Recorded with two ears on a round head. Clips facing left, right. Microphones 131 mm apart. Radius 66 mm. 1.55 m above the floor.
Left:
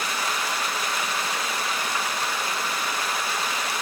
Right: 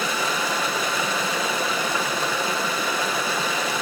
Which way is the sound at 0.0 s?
70° right (ahead or behind).